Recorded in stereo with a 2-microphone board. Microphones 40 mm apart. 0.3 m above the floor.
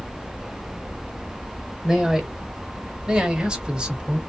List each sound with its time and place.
1.8 s a man speaking: 15° right (ahead or behind), 1.0 m; by 4.2 s 20° right (ahead or behind), 1.5 m